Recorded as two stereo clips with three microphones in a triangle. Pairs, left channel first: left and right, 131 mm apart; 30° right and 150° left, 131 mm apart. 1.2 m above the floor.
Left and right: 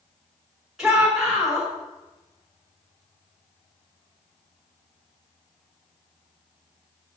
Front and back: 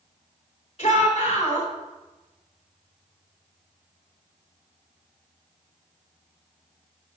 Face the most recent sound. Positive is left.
turn(degrees=-5)